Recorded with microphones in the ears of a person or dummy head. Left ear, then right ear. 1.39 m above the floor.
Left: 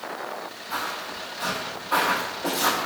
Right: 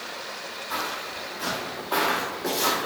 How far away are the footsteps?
About 1.6 m.